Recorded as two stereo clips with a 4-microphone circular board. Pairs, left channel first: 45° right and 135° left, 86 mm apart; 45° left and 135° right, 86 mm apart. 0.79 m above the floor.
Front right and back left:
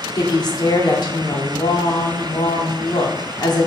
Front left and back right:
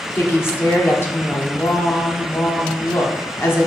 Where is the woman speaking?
15° right, 2.0 m.